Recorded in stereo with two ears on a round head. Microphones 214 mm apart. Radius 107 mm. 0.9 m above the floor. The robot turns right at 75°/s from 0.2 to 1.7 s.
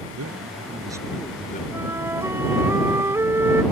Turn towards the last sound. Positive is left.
turn(degrees=-10)  # may be behind; listen again after turning